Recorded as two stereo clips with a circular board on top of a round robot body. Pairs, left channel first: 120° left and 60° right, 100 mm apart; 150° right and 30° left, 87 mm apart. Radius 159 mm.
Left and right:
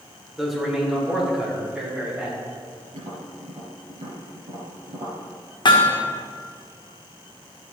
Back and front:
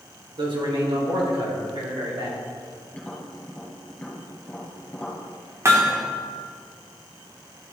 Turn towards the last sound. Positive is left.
turn(degrees=85)